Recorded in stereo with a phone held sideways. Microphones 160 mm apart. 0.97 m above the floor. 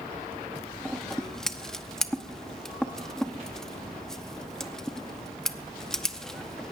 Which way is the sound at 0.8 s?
5° left (ahead or behind).